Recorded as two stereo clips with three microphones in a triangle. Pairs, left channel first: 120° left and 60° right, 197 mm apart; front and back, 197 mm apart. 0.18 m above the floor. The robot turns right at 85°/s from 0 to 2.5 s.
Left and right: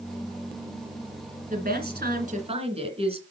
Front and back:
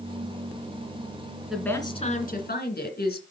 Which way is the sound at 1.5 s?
95° right.